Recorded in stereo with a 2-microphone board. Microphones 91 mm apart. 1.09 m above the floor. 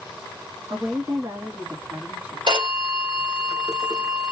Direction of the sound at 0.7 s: 50° right (ahead or behind).